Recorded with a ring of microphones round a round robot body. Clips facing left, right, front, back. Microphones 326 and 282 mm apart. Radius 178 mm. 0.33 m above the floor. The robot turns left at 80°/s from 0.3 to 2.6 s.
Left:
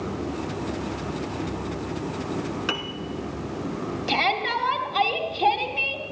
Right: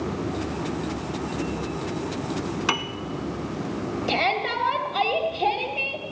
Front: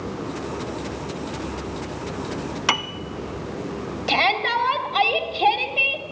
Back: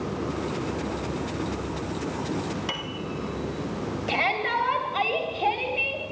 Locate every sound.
2.7 s a piano: 15° right, 0.6 m
4.1 s a shout: 15° left, 2 m